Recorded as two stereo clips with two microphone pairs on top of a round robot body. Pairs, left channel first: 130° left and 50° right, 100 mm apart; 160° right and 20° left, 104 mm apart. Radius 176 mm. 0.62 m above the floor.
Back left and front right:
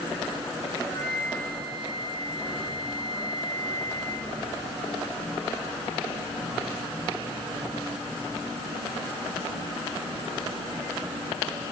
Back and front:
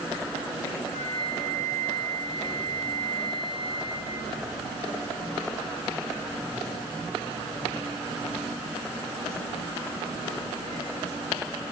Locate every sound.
0.9 s a flute: 175° right, 9 m